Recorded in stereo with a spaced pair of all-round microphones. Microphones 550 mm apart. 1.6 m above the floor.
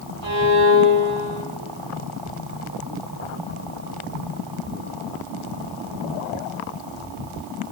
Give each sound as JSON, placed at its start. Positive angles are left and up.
{"t": 0.2, "sound": "a violin", "side_deg": -70, "distance_m": 3.5}